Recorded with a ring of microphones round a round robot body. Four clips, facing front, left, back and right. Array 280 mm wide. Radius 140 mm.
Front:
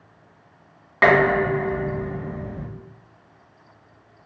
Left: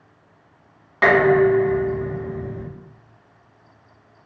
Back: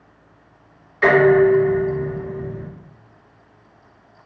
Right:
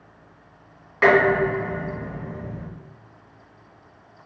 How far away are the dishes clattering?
About 2 m.